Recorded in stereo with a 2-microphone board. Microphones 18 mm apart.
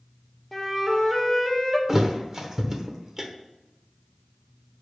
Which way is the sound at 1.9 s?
30° right (ahead or behind).